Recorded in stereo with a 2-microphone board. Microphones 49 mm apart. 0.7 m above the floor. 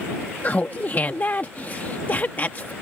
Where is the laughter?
35° left (ahead or behind).